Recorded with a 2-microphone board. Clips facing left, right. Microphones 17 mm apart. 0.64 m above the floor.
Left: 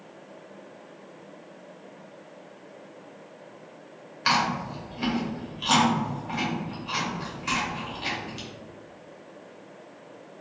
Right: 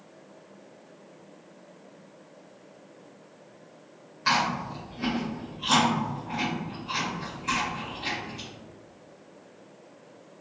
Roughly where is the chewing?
Left.